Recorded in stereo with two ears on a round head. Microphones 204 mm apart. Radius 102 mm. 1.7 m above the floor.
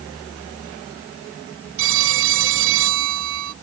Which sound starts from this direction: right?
A phone ringing, at 1.8 s.